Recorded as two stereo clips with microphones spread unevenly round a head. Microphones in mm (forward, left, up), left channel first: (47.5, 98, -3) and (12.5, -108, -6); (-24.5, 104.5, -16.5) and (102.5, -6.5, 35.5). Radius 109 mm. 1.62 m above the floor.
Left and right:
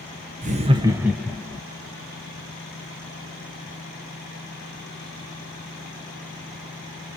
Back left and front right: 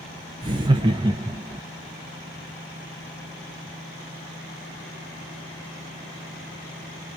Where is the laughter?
65° right, 0.7 m; by 1.6 s 5° left, 0.8 m.